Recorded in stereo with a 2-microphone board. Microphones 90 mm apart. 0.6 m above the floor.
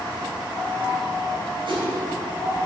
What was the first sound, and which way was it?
A whoosh, 75° right (ahead or behind).